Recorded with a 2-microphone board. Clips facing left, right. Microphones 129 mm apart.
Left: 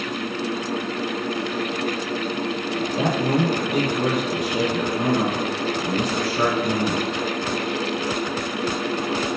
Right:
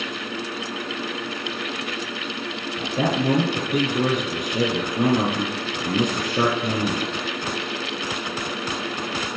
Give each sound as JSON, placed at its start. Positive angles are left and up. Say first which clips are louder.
{"t": 2.8, "sound": "a man speaking", "louder": "right 1 dB", "side_deg": -50, "distance_m": 5.5}